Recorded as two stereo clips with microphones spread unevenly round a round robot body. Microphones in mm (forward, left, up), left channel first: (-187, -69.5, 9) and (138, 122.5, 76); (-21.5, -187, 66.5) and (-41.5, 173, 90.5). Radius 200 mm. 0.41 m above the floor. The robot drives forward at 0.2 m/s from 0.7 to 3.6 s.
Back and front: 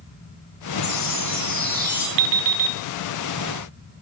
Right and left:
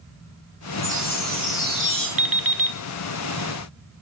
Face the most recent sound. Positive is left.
turn(degrees=60)